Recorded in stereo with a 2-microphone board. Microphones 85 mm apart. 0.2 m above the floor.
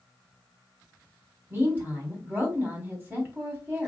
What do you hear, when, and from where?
1.5 s a woman speaking: 25° right (ahead or behind), 1.3 m